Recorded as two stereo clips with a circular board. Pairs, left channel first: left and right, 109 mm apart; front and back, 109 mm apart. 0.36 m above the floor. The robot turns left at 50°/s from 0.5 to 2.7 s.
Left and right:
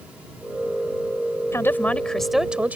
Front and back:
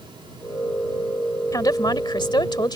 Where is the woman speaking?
40° left; by 2.8 s 20° right.